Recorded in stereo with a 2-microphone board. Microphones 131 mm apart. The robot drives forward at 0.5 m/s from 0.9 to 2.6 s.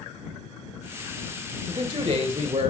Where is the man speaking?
40° right (ahead or behind), 2.5 m; by 2.7 s 45° right (ahead or behind), 2 m.